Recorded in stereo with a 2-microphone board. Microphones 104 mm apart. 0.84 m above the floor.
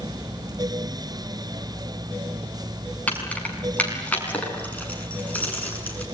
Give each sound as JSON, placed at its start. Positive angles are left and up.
{"t": 3.1, "sound": "keys jangling", "side_deg": 15, "distance_m": 5.5}